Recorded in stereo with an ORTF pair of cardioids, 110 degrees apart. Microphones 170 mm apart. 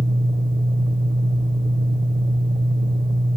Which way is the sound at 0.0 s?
45° right.